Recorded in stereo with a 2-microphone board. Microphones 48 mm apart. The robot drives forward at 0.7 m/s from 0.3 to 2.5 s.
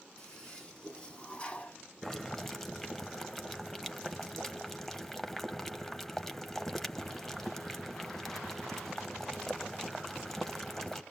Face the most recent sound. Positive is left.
turn(degrees=5)  # may be behind; listen again after turning